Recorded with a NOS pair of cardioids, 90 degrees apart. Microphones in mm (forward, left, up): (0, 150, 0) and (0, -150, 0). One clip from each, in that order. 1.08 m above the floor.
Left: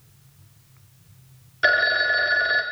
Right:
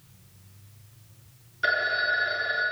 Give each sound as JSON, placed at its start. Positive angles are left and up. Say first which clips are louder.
{"t": 1.6, "sound": "a phone ringing", "louder": "left 6 dB", "azimuth_deg": 30, "distance_m": 0.5}